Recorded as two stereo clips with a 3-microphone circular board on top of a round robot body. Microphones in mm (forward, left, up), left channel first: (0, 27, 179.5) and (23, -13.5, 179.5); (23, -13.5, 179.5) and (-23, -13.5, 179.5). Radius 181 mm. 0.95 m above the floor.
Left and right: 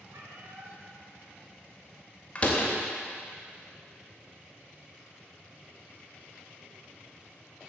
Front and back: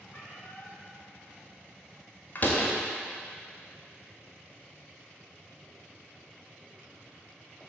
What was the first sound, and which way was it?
A cat meowing, 55° right.